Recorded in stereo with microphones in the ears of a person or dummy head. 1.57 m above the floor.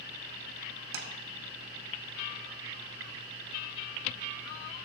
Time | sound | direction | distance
0.9 | tapping | 70° right (ahead or behind) | 0.8 m